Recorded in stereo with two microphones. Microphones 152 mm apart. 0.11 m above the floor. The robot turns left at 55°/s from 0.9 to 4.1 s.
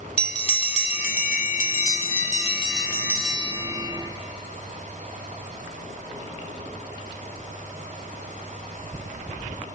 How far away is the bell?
About 0.9 m.